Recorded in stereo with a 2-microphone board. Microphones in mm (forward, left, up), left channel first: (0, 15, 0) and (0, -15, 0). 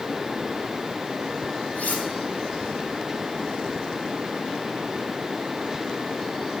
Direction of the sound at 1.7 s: 80° left.